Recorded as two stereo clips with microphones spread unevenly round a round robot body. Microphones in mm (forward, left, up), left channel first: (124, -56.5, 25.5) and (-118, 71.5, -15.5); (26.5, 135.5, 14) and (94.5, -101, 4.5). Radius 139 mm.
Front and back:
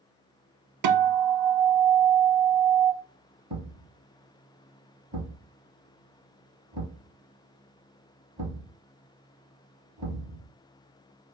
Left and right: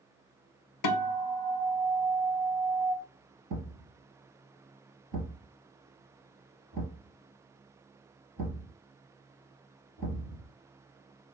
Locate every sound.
0.8 s a guitar: 125° left, 0.6 m
3.5 s a thud: 135° right, 2 m